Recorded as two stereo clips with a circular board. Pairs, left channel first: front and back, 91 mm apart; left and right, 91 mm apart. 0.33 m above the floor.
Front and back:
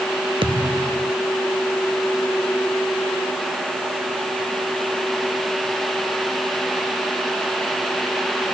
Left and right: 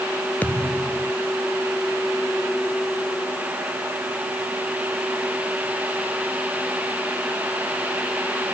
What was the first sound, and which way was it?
A thud, 165° left.